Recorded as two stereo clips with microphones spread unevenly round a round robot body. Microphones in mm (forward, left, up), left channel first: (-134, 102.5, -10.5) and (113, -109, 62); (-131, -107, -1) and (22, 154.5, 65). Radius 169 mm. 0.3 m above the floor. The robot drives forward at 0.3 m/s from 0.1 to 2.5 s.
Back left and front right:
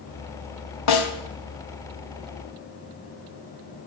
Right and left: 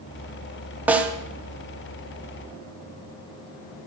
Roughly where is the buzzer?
I don't hear a buzzer.